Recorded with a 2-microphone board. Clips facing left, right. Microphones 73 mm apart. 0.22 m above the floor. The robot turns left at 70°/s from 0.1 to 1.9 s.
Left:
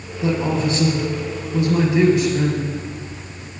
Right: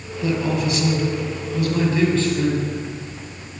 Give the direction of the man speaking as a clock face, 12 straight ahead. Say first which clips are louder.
Left 2 dB; 7 o'clock.